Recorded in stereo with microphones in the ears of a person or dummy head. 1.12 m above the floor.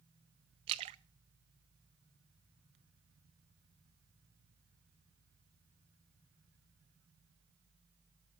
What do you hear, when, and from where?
0.7 s a splash: 30° right (ahead or behind), 0.6 m